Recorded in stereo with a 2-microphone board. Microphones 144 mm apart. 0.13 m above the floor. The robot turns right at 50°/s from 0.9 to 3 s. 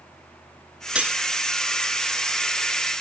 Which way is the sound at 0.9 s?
5° right (ahead or behind).